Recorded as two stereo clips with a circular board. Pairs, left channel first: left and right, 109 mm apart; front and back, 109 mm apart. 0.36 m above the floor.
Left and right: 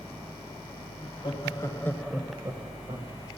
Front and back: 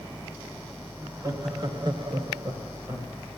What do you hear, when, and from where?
1.0 s laughter: 125° left, 2 m; by 3.1 s 110° right, 1.8 m